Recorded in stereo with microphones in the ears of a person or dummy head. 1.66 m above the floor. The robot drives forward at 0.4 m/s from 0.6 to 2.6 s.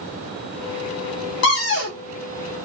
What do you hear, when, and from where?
1.4 s a cupboard door: 60° left (ahead or behind), 0.9 m; by 2.0 s 55° left (ahead or behind), 1.0 m